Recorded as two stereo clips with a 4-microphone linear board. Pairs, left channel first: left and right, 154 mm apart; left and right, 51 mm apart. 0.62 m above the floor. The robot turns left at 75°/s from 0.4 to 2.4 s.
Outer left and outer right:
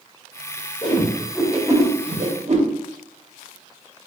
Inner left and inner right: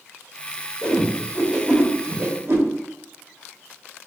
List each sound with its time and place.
0.8 s a whoosh: 30° left (ahead or behind), 0.8 m; by 2.6 s 50° right (ahead or behind), 0.8 m